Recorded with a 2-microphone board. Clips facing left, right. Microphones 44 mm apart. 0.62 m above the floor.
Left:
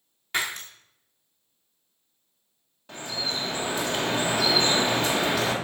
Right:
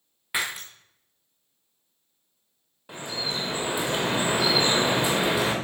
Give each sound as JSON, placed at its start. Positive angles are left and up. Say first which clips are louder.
{"t": 0.3, "sound": "breaking glass", "louder": "even", "side_deg": -10, "distance_m": 2.0}
{"t": 2.9, "sound": "dripping", "louder": "even", "side_deg": -15, "distance_m": 1.7}